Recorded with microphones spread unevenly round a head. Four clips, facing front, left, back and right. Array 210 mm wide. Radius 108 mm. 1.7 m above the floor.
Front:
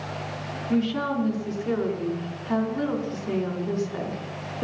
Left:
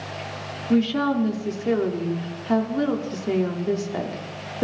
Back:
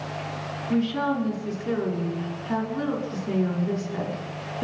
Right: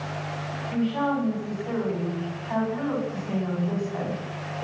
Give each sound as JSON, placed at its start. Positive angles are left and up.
{"t": 0.7, "sound": "a woman speaking", "azimuth_deg": 90, "distance_m": 5.5}